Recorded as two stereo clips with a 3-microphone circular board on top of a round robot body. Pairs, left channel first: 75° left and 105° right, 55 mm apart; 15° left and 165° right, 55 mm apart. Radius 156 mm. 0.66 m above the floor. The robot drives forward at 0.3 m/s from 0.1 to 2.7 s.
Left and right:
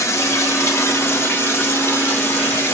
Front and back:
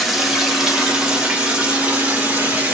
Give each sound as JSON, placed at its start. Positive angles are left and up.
{"t": 0.0, "sound": "running water", "azimuth_deg": 105, "distance_m": 1.5}